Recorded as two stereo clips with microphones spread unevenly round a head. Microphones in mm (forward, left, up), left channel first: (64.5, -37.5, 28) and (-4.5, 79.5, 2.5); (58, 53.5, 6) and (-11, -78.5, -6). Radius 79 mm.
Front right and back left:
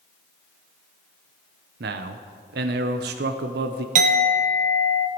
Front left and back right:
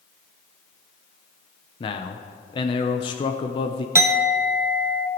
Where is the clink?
165° left, 0.7 m.